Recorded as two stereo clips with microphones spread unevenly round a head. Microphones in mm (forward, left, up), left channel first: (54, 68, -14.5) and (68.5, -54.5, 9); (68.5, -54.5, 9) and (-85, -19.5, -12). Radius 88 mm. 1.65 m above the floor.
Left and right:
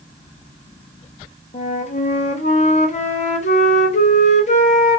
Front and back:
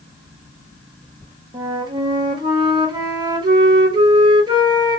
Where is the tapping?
I don't hear tapping.